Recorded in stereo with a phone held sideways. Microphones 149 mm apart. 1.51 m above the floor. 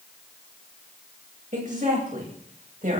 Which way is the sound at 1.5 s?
60° right (ahead or behind).